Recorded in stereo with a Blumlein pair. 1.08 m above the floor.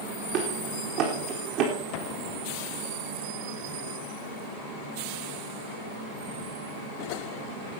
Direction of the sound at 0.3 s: 40° right.